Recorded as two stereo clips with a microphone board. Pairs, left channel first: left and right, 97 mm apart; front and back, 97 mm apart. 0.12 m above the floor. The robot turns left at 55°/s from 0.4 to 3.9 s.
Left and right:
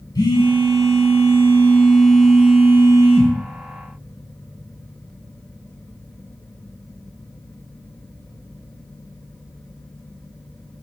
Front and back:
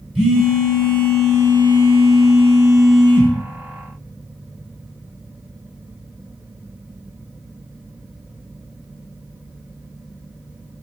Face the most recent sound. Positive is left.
turn(degrees=-100)